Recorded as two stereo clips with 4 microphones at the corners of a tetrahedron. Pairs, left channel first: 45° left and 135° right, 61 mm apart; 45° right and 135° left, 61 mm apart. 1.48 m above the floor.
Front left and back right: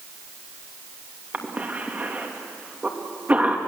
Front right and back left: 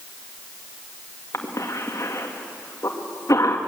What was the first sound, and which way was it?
A cough, 70° right.